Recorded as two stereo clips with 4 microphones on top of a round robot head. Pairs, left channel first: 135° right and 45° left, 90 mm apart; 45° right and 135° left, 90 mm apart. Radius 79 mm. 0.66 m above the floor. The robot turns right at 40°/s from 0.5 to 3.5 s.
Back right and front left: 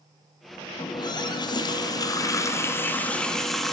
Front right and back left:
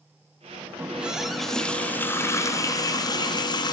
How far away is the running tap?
About 0.6 m.